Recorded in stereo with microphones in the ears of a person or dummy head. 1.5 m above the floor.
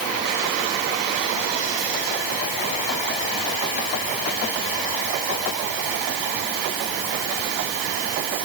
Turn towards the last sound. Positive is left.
No sound to turn to.